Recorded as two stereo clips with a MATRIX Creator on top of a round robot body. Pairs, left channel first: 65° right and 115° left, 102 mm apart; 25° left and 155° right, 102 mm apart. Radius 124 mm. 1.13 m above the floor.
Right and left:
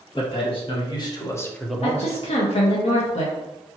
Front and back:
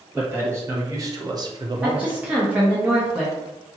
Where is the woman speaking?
80° right, 0.7 m.